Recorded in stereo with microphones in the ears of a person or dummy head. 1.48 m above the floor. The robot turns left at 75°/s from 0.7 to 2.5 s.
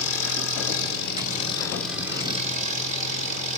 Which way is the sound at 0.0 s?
90° left.